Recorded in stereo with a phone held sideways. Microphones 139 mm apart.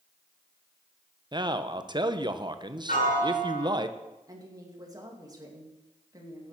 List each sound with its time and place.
1.3 s a man speaking: 35° right (ahead or behind), 0.8 m
2.9 s a piano: 80° left, 7.5 m
4.3 s a woman speaking: 30° right (ahead or behind), 2.5 m